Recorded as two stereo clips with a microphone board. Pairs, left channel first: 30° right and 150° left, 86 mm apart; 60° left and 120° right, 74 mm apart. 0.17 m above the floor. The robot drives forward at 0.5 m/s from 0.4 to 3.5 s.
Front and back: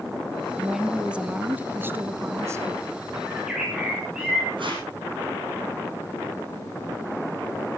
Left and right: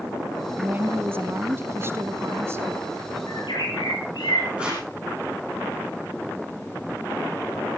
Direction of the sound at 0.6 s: 120° right.